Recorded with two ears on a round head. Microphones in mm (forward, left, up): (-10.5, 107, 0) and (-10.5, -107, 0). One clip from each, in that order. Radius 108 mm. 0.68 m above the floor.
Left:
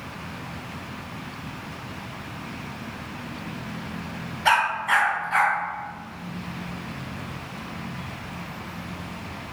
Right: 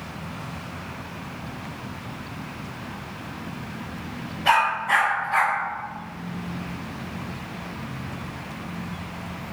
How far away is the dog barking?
About 1.3 m.